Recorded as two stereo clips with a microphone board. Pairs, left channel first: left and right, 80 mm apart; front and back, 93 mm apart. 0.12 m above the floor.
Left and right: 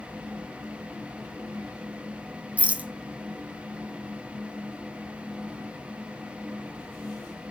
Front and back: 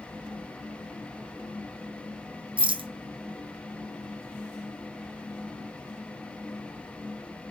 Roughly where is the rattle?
Behind.